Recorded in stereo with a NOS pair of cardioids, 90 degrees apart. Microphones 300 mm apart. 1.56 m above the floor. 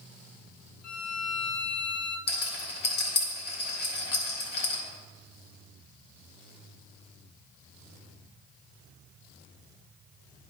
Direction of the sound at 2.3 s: 35° left.